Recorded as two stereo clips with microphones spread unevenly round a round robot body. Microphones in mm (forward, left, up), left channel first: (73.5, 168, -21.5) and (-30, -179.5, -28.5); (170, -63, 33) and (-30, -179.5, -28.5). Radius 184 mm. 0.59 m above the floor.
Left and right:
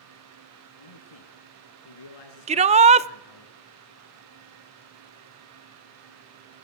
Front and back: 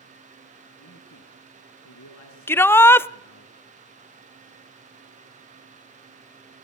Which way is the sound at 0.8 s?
65° left.